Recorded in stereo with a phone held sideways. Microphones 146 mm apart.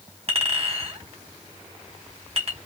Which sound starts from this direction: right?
A clink, at 0.3 s.